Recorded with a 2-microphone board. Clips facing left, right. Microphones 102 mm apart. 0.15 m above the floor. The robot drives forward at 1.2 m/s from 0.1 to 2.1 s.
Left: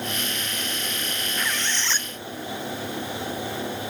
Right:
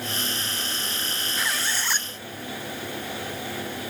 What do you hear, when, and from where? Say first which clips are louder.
1.4 s a squeak: even; 5° right (ahead or behind); by 2.1 s 15° right (ahead or behind)